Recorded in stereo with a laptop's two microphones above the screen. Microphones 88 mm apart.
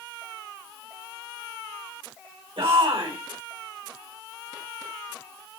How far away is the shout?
About 3.5 m.